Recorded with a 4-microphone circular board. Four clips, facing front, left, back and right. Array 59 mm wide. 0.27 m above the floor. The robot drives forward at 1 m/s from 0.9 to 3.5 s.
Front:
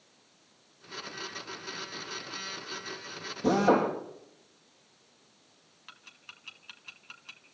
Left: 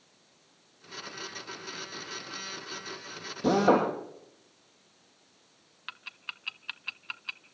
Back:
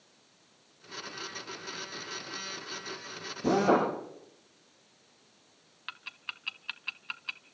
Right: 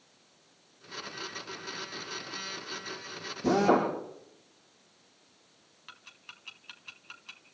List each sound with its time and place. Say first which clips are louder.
3.4 s a drill: left 1 dB, front 1 dB; 70° left, 7.5 m
5.9 s ticking: left 9 dB, back 9 dB; 135° left, 0.8 m